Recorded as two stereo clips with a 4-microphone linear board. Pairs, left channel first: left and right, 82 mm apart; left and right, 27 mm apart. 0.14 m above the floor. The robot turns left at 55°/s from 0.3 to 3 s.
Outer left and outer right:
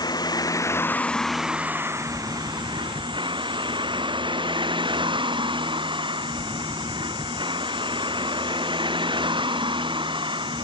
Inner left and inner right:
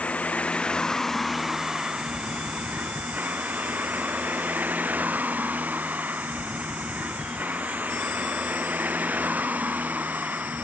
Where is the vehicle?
60° left; by 10.7 s 90° right.